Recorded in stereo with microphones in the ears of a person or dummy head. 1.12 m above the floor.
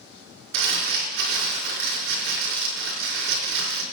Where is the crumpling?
65° right (ahead or behind), 4 m.